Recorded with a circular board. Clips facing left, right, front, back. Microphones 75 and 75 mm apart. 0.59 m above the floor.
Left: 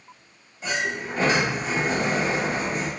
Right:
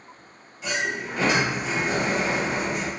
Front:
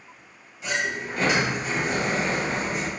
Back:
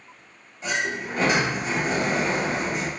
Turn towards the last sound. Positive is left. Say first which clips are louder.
# even, back 1 dB
turn(degrees=135)